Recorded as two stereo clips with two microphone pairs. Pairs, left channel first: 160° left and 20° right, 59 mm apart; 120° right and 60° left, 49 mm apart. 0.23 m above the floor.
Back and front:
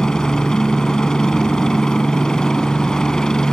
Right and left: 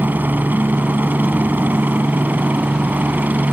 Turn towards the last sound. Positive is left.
turn(degrees=85)